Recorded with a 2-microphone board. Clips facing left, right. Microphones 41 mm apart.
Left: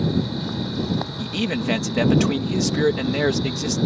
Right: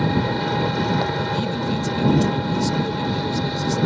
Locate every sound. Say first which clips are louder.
0.0 s an engine running: right 3 dB; 55° right (ahead or behind)
1.2 s a man speaking: right 2 dB; 80° left